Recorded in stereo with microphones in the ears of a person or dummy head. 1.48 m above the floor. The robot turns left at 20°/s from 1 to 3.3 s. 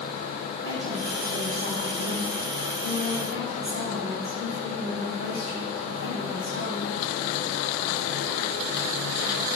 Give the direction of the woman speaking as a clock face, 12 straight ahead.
3 o'clock.